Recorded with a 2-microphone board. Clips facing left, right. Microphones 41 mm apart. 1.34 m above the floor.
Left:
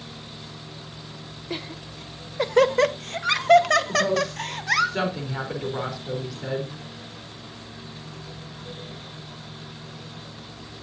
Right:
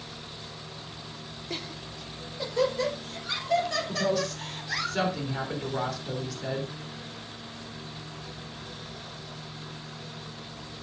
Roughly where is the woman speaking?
Centre.